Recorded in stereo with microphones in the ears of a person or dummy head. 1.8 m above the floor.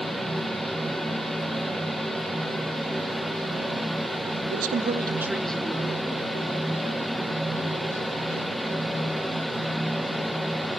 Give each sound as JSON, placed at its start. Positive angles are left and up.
{"t": 4.5, "sound": "a man speaking", "side_deg": -55, "distance_m": 0.6}